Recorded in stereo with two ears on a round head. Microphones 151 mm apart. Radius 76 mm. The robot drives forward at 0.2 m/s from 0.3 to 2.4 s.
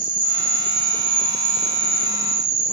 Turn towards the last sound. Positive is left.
turn(degrees=-20)  # may be behind; listen again after turning